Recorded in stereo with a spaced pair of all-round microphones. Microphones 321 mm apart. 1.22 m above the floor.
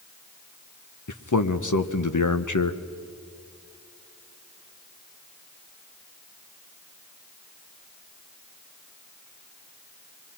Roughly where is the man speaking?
Left.